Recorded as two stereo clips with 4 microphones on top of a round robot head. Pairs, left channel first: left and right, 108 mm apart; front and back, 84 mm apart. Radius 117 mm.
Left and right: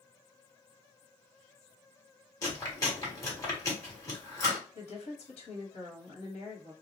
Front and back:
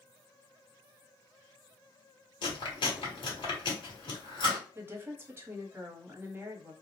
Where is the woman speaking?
115° left, 1.0 m.